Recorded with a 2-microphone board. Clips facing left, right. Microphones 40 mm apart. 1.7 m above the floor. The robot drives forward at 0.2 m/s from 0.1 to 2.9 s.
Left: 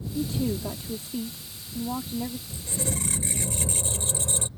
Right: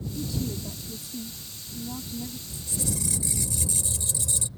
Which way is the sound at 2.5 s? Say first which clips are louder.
Left 1 dB; 40° left (ahead or behind).